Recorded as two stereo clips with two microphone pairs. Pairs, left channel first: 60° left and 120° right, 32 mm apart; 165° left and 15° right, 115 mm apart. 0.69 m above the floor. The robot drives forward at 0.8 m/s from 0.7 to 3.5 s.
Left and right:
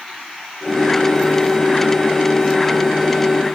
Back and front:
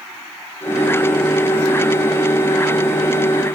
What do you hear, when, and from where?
Only background noise.